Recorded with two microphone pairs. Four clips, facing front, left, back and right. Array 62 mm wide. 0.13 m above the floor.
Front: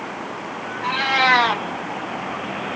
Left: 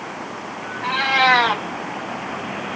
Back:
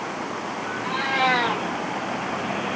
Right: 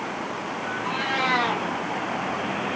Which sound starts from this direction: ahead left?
A cat meowing, at 0.8 s.